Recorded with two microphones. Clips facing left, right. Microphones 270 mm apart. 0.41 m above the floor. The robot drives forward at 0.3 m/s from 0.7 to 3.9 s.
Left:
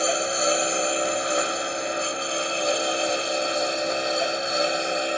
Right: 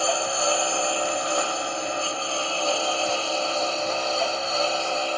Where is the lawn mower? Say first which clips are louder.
Left 1 dB; 20° left (ahead or behind).